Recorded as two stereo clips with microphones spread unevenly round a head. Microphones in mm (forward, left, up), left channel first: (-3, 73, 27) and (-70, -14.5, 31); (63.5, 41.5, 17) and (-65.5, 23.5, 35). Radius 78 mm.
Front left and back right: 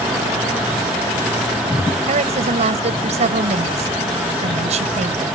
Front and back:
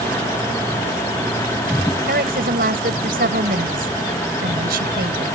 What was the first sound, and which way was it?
A woman speaking, 140° right.